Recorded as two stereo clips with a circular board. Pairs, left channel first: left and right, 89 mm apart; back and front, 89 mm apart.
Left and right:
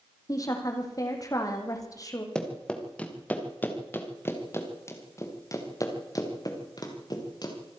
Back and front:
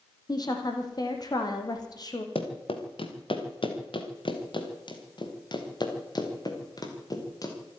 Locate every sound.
0.3 s a woman speaking: 140° left, 4 m
2.4 s running footsteps: 175° left, 3.5 m; by 7.5 s 130° left, 5 m